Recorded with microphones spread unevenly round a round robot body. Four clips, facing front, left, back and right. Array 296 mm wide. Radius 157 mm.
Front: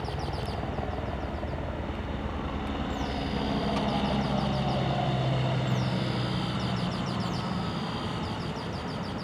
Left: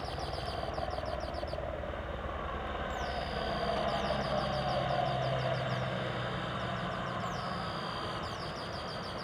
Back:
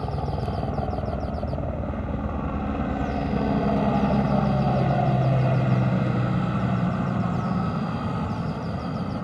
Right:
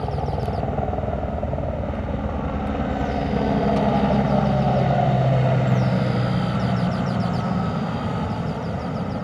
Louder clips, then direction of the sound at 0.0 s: Right 12 dB, back 5 dB; 120° right.